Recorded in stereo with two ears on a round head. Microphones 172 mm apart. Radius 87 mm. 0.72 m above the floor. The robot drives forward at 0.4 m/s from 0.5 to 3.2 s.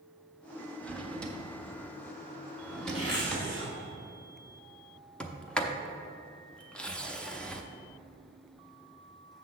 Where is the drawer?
5° left (ahead or behind), 0.8 m.